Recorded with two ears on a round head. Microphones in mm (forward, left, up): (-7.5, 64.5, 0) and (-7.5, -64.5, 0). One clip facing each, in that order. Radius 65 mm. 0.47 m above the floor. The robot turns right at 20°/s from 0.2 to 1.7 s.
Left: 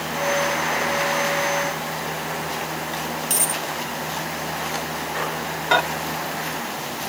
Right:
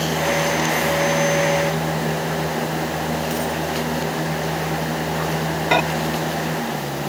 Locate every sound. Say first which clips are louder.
3.3 s a dropped coin: right 5 dB; 65° left (ahead or behind)
5.7 s a microwave: right 1 dB; 15° right (ahead or behind)